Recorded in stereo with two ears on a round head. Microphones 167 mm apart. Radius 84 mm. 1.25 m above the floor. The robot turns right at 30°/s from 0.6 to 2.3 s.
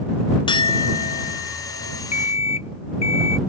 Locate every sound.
0.5 s a clink: 25° left; by 2.0 s 65° left
2.1 s an alarm clock: 35° left (ahead or behind); by 3.4 s 30° left (ahead or behind)